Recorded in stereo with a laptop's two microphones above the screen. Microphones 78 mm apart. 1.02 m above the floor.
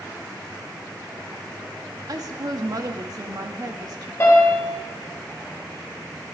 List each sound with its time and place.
2.1 s a woman speaking: 50° right (ahead or behind), 1.7 m
4.2 s a piano: 30° left (ahead or behind), 3.5 m